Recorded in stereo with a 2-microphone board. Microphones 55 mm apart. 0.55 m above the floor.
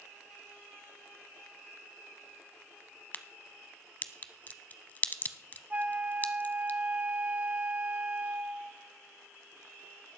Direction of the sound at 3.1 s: 35° left (ahead or behind).